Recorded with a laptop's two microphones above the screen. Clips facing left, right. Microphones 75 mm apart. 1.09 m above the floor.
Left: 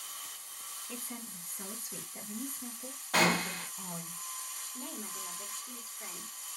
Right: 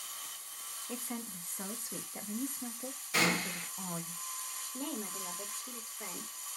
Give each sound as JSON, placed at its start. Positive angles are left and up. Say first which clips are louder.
{"t": 0.9, "sound": "a woman speaking", "louder": "right 4 dB", "side_deg": -25, "distance_m": 0.7}
{"t": 3.1, "sound": "a gunshot", "louder": "left 4 dB", "side_deg": 60, "distance_m": 1.3}
{"t": 4.7, "sound": "a woman speaking", "louder": "right 5 dB", "side_deg": -65, "distance_m": 1.3}